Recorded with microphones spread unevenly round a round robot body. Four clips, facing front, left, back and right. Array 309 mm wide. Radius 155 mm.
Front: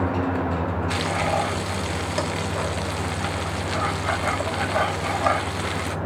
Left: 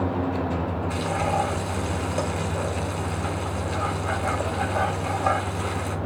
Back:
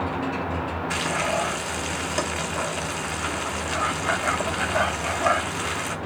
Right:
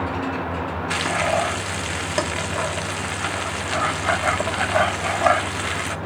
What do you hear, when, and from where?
0.9 s frying: 95° right, 1.0 m